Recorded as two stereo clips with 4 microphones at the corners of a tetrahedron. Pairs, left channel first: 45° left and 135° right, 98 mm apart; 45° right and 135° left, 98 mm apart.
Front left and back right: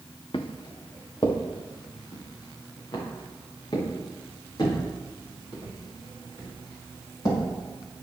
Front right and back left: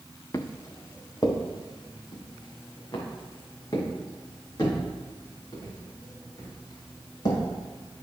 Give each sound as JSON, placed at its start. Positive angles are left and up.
{"t": 0.3, "sound": "footsteps", "azimuth_deg": 15, "distance_m": 1.1}